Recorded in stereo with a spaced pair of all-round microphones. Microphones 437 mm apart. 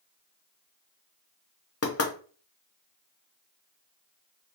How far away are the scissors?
I don't hear scissors.